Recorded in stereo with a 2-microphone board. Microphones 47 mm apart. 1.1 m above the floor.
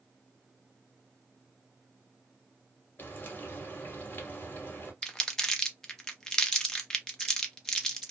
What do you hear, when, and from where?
3.0 s frying: 40° left (ahead or behind), 1.2 m
5.0 s crumpling: 15° left (ahead or behind), 0.6 m